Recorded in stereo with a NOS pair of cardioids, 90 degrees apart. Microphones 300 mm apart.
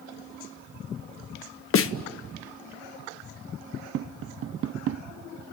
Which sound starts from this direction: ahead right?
Tapping, at 3.9 s.